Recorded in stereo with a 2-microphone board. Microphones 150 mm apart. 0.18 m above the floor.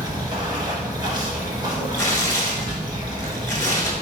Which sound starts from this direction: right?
Running water, at 0.0 s.